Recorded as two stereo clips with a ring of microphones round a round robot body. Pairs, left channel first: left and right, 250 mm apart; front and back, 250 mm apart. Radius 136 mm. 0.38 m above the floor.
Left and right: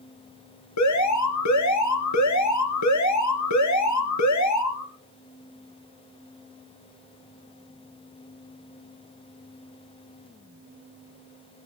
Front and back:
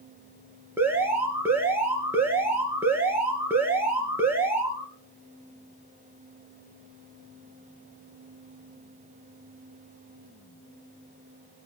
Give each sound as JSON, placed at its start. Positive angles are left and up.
{"t": 0.8, "sound": "an alarm", "azimuth_deg": 100, "distance_m": 3.5}